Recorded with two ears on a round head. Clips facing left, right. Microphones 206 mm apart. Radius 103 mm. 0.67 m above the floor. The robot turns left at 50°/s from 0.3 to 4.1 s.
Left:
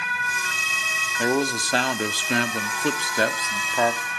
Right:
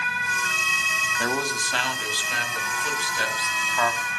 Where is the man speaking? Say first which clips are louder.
Left 6 dB; 165° left, 1.3 m; by 4.0 s 20° left, 1.3 m.